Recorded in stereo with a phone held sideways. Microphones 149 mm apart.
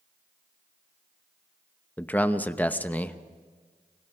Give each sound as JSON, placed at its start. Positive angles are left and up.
{"t": 2.0, "sound": "a man speaking", "side_deg": 10, "distance_m": 0.8}